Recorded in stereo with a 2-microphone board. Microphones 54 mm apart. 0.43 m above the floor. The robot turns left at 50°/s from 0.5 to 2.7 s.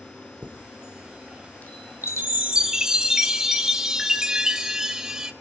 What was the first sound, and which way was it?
A chime, 30° right (ahead or behind).